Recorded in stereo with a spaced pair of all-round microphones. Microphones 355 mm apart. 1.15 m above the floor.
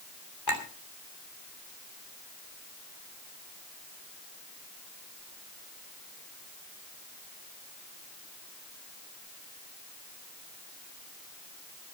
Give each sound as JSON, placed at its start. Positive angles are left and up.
{"t": 0.5, "sound": "a clink", "side_deg": 90, "distance_m": 2.5}